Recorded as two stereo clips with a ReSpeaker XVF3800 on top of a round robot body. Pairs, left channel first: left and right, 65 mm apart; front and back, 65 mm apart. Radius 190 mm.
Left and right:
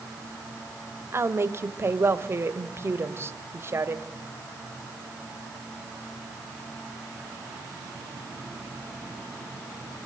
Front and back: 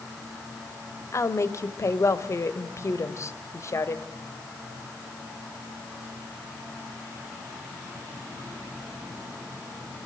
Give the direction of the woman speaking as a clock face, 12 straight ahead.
1 o'clock.